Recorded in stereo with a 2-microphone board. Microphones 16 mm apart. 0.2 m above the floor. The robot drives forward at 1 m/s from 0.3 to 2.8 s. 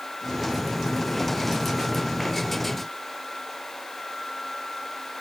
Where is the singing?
I don't hear singing.